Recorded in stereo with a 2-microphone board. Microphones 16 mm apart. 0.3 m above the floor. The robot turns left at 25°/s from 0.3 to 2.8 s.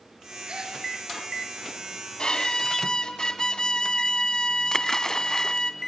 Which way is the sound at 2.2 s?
60° left (ahead or behind).